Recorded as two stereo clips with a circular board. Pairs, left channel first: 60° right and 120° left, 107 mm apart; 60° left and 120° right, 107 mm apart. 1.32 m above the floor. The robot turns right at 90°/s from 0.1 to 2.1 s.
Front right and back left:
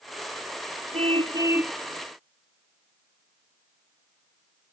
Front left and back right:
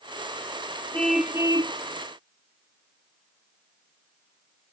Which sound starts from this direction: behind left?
A car horn, at 0.9 s.